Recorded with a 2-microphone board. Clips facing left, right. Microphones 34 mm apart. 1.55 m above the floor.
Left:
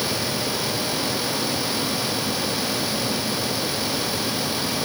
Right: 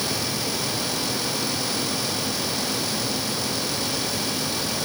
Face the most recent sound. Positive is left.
No sound to turn to.